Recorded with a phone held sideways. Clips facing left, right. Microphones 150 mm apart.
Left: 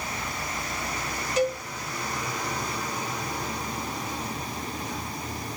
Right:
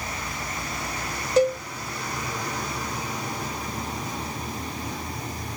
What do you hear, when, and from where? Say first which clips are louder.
1.4 s a cowbell: right 5 dB; 35° right (ahead or behind), 1.4 m